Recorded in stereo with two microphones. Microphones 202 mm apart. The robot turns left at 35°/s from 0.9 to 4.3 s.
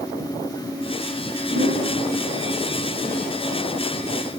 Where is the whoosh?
75° right (ahead or behind), 1.4 m; by 1.9 s 60° right (ahead or behind), 1.4 m.